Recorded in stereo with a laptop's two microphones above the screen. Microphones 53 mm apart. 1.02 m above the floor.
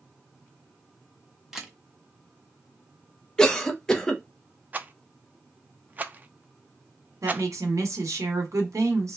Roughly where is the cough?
Centre.